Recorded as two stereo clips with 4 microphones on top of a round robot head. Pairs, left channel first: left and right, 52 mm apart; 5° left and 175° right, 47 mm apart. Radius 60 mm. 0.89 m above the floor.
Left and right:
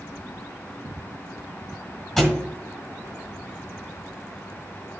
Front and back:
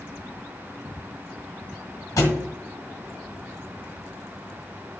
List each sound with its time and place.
2.2 s a thud: 10° left, 1.5 m